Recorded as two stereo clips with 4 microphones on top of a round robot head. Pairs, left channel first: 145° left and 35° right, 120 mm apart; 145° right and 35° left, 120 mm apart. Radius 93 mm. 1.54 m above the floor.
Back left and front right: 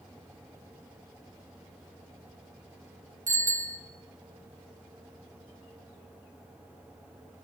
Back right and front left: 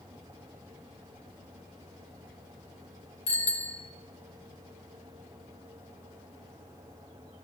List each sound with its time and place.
3.3 s a bicycle bell: 105° right, 4.5 m